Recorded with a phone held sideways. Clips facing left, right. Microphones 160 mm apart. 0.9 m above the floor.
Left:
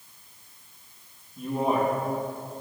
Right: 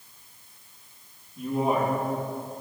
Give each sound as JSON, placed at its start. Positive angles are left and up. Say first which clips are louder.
{"t": 1.4, "sound": "a man speaking", "louder": "even", "side_deg": 10, "distance_m": 1.2}